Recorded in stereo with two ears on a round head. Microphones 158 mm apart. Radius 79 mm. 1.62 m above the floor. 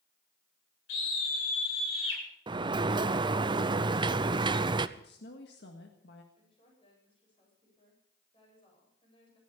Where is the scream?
75° left (ahead or behind), 8 m.